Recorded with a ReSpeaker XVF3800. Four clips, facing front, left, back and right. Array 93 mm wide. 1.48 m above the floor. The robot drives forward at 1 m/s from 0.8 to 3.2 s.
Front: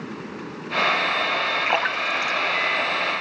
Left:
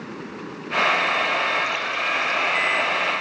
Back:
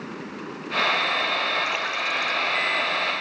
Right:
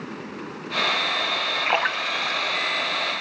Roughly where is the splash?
Ahead right.